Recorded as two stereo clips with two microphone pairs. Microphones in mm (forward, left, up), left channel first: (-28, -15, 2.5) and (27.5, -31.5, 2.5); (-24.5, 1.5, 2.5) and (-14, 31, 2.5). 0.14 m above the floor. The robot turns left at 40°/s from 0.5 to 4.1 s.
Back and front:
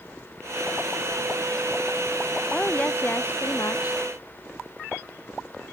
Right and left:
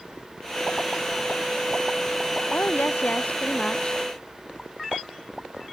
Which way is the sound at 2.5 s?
120° right.